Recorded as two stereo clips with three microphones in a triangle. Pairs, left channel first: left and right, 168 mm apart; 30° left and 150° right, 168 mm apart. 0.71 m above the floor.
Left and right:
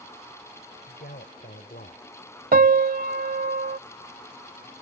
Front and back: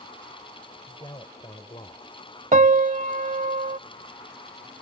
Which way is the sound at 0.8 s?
90° left.